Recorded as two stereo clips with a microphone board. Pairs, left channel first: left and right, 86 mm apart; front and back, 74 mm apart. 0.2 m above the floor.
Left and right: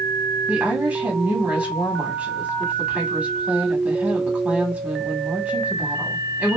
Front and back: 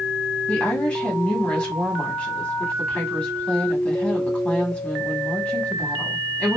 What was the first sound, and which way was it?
A woman speaking, 45° right.